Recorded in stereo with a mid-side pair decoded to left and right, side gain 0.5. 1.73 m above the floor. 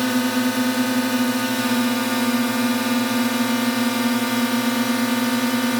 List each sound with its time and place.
0.0 s a drone: 5° right